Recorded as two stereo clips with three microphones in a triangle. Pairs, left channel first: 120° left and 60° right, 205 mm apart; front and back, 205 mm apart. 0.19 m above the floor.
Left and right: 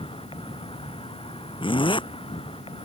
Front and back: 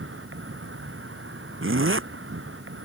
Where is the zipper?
175° right.